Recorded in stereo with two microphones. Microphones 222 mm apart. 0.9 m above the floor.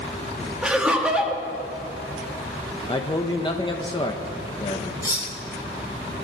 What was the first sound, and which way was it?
Laughter, 5° right (ahead or behind).